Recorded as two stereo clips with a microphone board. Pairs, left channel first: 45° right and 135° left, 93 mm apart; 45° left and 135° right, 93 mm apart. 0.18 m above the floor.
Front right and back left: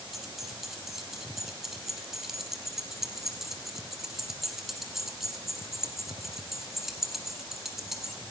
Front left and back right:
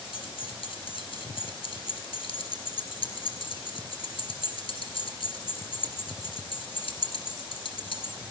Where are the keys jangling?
50° left, 2.5 m.